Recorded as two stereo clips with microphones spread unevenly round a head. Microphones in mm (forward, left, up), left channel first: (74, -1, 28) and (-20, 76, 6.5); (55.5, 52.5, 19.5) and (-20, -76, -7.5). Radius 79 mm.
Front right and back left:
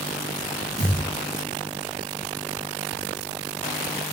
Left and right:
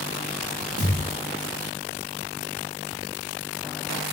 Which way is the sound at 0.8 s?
145° right.